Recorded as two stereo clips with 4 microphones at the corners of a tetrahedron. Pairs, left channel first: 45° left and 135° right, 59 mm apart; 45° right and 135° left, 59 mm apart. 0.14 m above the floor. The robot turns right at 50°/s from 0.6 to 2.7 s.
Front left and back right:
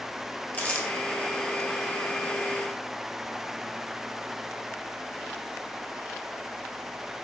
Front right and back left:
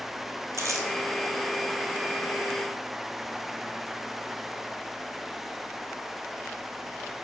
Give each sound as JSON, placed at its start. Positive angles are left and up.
{"t": 0.5, "sound": "crumpling", "azimuth_deg": 105, "distance_m": 1.2}